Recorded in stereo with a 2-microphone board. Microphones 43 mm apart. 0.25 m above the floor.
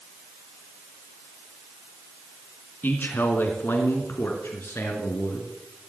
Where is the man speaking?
50° left (ahead or behind), 2.5 m; by 5.5 s 70° left (ahead or behind), 3.5 m.